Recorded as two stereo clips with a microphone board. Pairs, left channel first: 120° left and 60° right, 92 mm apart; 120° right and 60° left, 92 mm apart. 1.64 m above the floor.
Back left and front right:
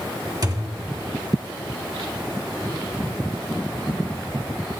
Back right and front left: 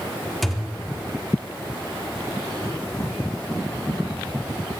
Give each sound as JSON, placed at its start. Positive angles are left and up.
{"t": 0.4, "sound": "a thud", "azimuth_deg": -30, "distance_m": 1.7}